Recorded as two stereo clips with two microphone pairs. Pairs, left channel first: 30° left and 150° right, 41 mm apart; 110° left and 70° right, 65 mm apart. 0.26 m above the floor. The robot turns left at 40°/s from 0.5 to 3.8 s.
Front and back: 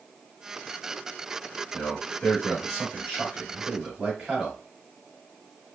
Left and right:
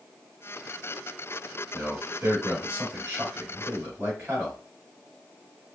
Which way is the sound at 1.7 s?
20° right.